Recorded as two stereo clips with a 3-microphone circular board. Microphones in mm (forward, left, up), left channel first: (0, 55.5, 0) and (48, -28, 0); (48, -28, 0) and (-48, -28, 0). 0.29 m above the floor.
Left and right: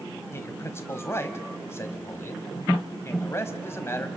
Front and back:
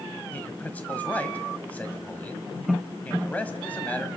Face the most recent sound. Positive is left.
turn(degrees=70)